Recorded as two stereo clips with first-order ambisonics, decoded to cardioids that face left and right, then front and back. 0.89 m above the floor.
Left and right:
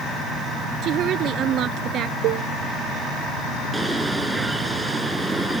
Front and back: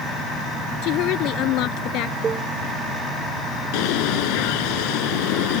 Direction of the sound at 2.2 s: 110° right.